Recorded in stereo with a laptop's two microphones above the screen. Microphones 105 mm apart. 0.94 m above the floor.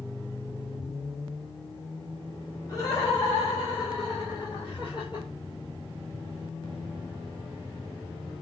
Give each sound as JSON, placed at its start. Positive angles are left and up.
{"t": 2.7, "sound": "laughter", "side_deg": 35, "distance_m": 3.5}